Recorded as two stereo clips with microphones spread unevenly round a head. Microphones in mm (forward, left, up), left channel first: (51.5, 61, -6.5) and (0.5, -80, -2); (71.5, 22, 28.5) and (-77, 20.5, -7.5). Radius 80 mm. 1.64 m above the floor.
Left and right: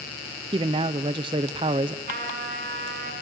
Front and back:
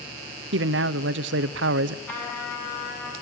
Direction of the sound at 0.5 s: 170° right.